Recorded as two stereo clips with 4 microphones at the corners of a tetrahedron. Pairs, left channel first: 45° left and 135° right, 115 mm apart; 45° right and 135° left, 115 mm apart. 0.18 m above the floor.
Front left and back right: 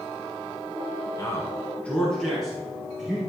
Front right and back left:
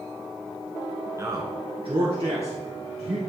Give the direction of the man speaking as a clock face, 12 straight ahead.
9 o'clock.